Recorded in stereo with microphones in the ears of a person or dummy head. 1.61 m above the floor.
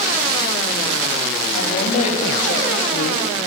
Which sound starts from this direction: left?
A woman speaking, at 1.5 s.